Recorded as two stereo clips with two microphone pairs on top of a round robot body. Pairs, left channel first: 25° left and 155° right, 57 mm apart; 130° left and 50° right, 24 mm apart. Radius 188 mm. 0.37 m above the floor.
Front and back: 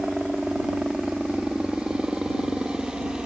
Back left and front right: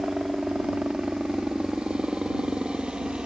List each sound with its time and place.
0.0 s a helicopter: 80° right